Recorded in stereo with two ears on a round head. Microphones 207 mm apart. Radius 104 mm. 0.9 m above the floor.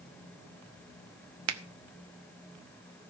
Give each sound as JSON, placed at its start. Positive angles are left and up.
{"t": 1.5, "sound": "a finger snap", "side_deg": -75, "distance_m": 1.0}